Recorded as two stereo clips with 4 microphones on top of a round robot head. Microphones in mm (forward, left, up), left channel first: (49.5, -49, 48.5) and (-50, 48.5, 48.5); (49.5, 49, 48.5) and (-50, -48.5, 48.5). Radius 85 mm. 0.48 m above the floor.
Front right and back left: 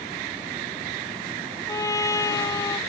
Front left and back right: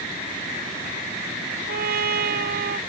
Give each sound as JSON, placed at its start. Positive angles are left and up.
{"t": 1.7, "sound": "a trumpet", "azimuth_deg": -115}